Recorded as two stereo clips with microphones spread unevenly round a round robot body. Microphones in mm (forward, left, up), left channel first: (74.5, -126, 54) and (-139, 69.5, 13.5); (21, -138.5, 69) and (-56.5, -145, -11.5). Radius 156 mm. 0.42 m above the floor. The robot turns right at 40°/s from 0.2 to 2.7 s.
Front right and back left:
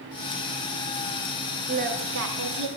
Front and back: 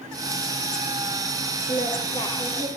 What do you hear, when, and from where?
1.7 s singing: 70° left, 3 m; by 2.7 s 110° left, 3 m